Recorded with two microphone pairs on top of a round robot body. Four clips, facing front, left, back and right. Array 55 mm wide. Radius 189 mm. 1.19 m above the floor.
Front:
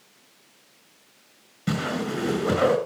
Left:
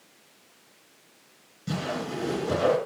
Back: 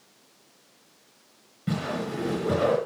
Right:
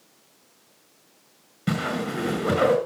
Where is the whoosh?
65° right, 6 m.